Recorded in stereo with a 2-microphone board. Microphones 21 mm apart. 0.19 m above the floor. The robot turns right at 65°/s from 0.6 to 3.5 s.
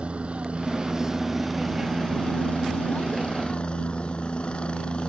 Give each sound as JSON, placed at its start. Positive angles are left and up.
{"t": 0.0, "sound": "a helicopter", "azimuth_deg": -55}